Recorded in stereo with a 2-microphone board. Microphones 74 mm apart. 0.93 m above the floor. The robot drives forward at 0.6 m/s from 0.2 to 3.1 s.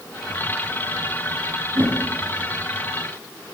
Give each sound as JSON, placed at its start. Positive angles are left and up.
{"t": 1.8, "sound": "a whoosh", "side_deg": -65, "distance_m": 4.0}